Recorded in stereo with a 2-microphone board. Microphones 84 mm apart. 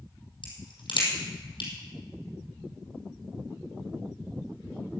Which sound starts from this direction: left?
A crack, at 0.4 s.